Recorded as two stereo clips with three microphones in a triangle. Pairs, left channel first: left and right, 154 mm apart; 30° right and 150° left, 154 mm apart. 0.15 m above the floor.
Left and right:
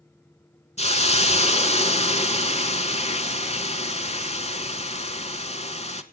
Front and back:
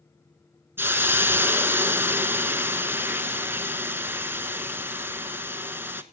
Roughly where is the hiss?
Left.